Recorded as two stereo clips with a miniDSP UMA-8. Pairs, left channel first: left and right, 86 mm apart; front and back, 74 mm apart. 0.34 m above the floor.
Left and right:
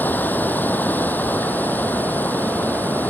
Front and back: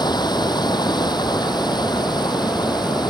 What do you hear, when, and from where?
0.0 s running water: 20° left